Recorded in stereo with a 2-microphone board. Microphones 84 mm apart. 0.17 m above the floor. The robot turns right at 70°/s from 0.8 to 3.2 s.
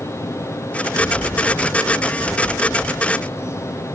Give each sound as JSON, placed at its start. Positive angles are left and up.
{"t": 0.9, "sound": "a bird", "azimuth_deg": 120, "distance_m": 5.0}